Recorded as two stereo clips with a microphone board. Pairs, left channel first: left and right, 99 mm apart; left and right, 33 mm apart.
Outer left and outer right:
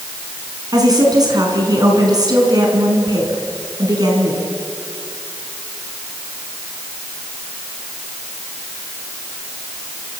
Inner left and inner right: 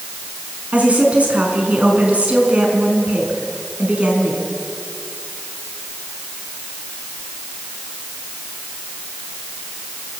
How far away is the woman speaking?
About 5 m.